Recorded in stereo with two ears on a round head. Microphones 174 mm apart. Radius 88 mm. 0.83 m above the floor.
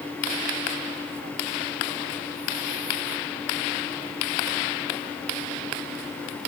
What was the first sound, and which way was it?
Only background noise.